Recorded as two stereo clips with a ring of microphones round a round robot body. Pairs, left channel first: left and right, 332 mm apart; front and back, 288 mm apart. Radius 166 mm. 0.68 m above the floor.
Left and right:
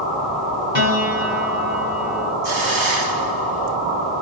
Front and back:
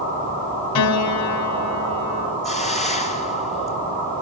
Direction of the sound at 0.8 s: 30° right.